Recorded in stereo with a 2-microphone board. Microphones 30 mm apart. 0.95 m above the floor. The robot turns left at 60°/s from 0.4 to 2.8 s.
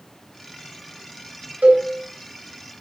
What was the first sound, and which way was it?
A cowbell, 65° right (ahead or behind).